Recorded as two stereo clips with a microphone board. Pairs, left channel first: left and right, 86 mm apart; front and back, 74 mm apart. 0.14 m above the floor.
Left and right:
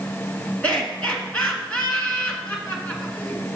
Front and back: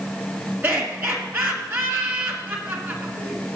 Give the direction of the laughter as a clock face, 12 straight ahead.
7 o'clock.